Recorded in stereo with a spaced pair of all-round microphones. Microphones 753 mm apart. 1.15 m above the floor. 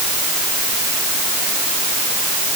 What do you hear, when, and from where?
Only background noise.